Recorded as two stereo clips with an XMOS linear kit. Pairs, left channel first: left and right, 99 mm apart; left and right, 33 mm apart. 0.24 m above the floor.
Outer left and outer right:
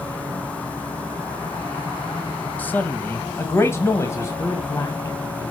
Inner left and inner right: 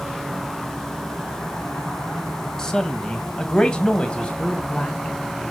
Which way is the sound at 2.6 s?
20° left (ahead or behind).